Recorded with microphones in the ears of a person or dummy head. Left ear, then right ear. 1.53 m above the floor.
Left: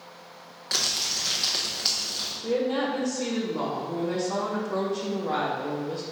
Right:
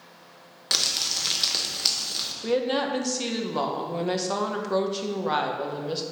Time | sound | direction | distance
0.7 | crumpling | 15° right (ahead or behind) | 1.0 m
2.4 | a woman speaking | 65° right (ahead or behind) | 1.1 m